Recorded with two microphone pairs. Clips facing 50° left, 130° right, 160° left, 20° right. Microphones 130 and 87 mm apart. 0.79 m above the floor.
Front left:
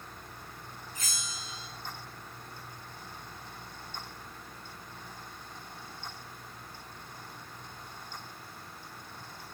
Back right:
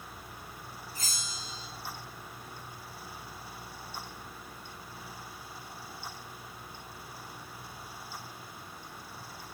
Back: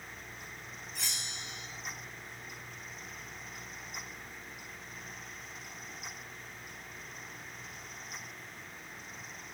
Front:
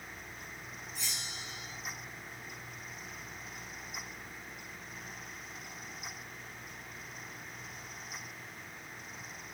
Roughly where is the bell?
Behind.